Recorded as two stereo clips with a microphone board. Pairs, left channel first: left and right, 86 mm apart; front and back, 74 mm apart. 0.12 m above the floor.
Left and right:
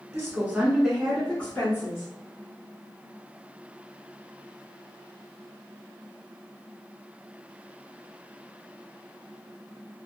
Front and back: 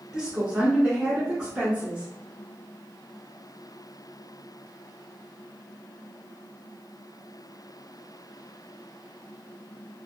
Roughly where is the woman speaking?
Right.